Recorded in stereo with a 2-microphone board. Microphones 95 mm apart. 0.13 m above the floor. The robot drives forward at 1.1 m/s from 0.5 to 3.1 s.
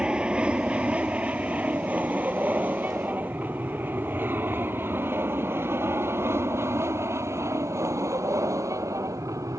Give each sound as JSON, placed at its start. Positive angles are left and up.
{"t": 0.0, "sound": "an aircraft", "side_deg": -10}